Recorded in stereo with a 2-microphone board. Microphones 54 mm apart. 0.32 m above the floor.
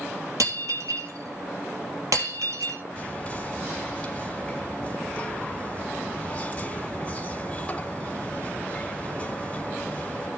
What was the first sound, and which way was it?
Breaking glass, 80° right.